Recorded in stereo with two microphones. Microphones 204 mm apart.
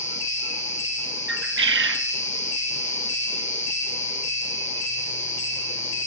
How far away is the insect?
About 1.9 m.